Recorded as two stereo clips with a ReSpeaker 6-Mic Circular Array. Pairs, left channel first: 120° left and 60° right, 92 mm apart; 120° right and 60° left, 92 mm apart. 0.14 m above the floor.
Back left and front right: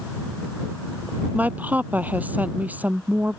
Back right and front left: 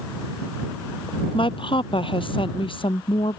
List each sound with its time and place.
1.3 s a woman speaking: 135° right